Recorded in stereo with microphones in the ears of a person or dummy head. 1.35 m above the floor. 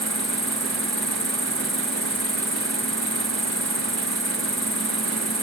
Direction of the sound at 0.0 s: 5° left (ahead or behind).